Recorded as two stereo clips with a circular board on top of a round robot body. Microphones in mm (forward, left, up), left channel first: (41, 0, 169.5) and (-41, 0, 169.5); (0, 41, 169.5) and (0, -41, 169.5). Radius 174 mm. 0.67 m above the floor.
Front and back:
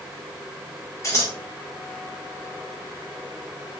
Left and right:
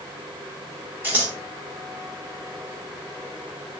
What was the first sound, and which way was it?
Scissors, 35° right.